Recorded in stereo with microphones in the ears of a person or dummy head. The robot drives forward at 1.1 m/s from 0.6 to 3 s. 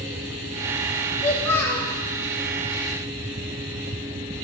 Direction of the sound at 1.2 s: 10° left (ahead or behind).